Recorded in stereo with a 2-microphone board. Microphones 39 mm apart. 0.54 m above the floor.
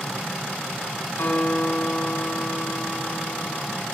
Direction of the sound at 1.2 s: 65° left (ahead or behind).